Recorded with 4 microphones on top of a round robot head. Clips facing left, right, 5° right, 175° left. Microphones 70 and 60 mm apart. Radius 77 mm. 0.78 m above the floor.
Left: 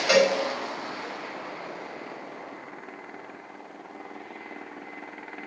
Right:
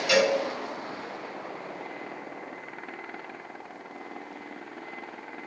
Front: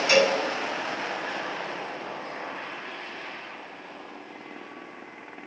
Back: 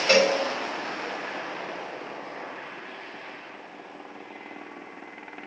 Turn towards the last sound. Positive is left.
turn(degrees=135)